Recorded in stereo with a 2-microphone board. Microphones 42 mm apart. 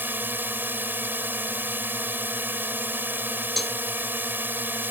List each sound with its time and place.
0.0 s a drone: 50° right (ahead or behind)
3.6 s a cowbell: 5° left (ahead or behind)